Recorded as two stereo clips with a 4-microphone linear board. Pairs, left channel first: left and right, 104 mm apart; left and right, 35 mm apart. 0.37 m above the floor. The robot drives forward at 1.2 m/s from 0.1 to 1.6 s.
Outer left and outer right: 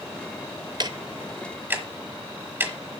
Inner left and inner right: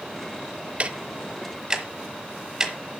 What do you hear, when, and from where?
0.8 s ticking: 45° right (ahead or behind), 0.7 m; by 2.7 s 20° right (ahead or behind), 1.4 m